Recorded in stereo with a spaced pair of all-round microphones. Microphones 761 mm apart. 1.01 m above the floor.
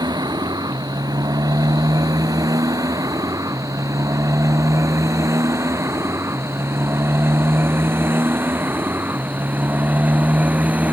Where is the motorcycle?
5° right (ahead or behind); by 10.9 s centre (ahead or behind).